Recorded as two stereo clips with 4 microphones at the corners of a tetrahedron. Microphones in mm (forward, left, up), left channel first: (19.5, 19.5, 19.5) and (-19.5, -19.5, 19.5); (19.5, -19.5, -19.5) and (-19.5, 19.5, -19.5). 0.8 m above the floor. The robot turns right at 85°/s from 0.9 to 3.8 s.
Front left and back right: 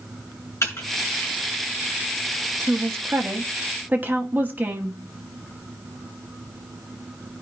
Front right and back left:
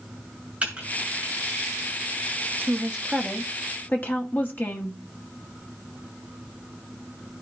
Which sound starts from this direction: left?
Typing on a keyboard, at 0.6 s.